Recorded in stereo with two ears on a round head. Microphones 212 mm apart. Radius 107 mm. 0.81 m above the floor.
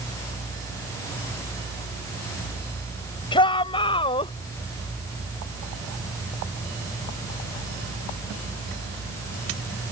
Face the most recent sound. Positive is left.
turn(degrees=25)  # may be behind; listen again after turning